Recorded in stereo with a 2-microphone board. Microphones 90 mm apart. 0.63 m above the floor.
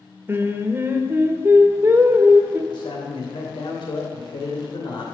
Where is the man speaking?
65° left (ahead or behind), 3 m.